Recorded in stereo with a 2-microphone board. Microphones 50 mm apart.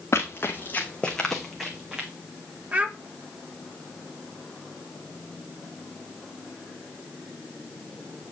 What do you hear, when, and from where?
0.1 s running footsteps: 55° left (ahead or behind), 1.5 m; by 2.1 s 15° right (ahead or behind), 1.9 m
2.7 s a child speaking: 30° right (ahead or behind), 0.9 m